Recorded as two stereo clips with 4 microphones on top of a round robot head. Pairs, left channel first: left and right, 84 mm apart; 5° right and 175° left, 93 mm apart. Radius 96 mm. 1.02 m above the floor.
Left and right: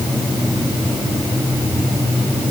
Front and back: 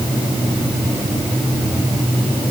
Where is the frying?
No frying in this recording.